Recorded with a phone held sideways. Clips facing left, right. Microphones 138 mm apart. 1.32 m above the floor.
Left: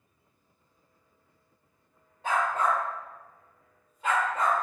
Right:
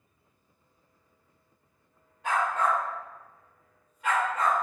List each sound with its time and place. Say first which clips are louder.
2.2 s a dog barking: even; 35° left (ahead or behind), 1.4 m; by 4.5 s 25° left (ahead or behind), 1.2 m